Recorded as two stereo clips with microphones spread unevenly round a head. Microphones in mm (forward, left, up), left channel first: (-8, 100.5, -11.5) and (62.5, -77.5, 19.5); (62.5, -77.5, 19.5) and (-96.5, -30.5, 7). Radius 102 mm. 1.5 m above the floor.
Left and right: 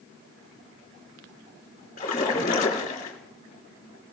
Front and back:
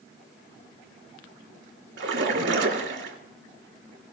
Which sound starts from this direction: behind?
A splash, at 2.0 s.